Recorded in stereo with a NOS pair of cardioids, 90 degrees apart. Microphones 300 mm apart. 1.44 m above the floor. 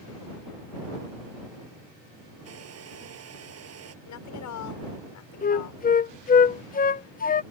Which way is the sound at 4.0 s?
70° left.